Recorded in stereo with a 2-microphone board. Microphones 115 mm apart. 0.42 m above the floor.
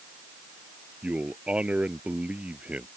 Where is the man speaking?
10° right (ahead or behind).